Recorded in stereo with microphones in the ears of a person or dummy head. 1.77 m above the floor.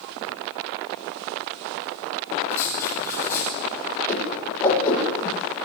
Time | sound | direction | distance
2.5 | writing | 20° left (ahead or behind) | 9 m
4.1 | a whoosh | 15° left (ahead or behind) | 10 m